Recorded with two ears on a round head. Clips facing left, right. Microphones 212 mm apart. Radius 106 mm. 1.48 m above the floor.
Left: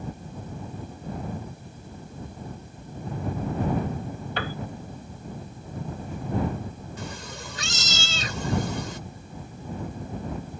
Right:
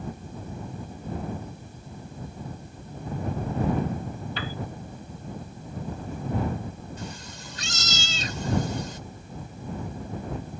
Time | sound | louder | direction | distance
4.4 | a piano | left 5 dB | 50° left (ahead or behind) | ?
7.0 | a cat meowing | left 2 dB | 60° left (ahead or behind) | ?